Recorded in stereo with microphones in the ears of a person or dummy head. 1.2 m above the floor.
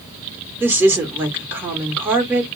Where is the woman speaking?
10° right (ahead or behind), 1.1 m.